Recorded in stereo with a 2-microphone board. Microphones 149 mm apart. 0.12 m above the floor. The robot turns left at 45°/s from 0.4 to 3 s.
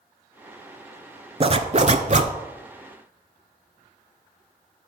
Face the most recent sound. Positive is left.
turn(degrees=-130)